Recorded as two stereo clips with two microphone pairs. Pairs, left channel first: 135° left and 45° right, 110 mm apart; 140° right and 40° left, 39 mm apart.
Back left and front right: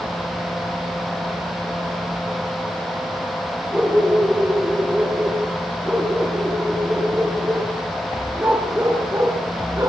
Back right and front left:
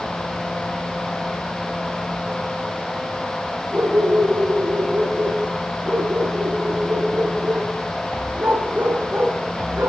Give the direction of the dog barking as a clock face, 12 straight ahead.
11 o'clock.